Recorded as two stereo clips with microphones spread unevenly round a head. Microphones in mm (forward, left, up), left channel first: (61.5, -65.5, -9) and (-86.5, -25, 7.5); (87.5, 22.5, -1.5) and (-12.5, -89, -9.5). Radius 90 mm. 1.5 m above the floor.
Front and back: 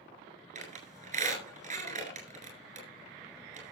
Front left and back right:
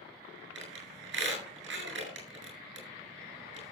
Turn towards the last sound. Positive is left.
turn(degrees=-155)